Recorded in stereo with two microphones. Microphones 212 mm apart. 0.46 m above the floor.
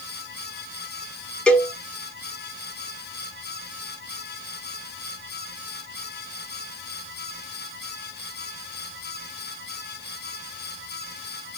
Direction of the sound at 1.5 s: 5° left (ahead or behind).